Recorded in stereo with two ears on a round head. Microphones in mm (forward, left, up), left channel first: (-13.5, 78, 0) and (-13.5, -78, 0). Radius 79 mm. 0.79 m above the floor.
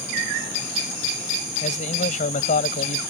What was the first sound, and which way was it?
A man speaking, 45° left (ahead or behind).